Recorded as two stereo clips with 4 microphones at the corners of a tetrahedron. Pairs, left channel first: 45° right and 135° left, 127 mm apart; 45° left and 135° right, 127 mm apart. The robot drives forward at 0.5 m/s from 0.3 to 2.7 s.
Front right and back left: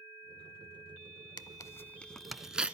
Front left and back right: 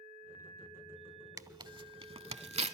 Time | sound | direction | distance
1.4 | tearing paper | 85° right | 0.6 m